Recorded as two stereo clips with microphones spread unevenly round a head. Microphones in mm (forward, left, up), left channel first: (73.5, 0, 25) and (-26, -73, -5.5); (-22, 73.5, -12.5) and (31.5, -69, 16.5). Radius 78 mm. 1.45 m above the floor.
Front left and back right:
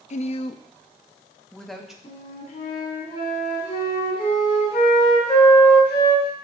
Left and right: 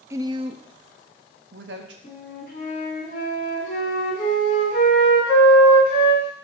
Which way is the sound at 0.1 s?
5° left.